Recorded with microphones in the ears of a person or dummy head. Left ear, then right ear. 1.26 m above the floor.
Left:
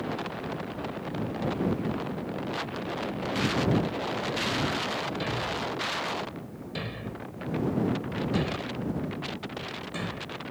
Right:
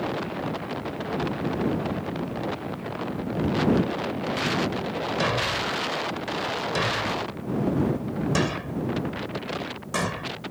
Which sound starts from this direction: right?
A thud, at 5.2 s.